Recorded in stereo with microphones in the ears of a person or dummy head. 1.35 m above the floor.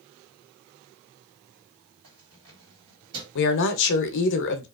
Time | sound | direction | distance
2.0 | keys jangling | 70° right (ahead or behind) | 2.0 m
3.4 | a woman speaking | 70° left (ahead or behind) | 0.5 m